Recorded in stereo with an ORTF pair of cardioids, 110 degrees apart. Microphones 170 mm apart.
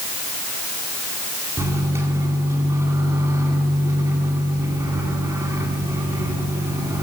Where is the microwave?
20° right, 9 m.